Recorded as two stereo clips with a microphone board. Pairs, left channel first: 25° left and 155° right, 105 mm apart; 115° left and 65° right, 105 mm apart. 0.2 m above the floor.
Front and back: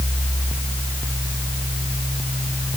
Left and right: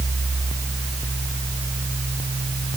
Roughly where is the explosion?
No explosion in this recording.